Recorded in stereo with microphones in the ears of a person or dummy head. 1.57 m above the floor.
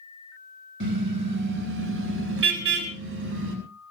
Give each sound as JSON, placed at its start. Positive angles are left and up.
{"t": 0.8, "sound": "a car horn", "side_deg": -70, "distance_m": 4.5}